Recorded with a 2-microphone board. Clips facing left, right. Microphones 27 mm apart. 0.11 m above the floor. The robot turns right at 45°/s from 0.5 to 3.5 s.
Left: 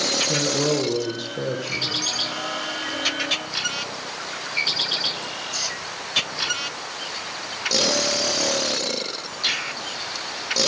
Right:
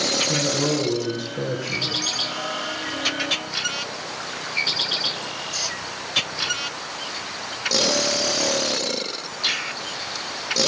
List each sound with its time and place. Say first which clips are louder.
0.3 s a man speaking: even; 115° left, 4 m; by 2.0 s straight behind, 4 m